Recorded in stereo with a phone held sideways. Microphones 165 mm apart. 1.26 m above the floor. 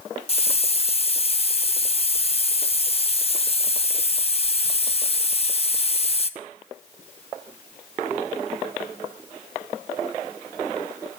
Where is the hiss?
40° left (ahead or behind), 0.7 m.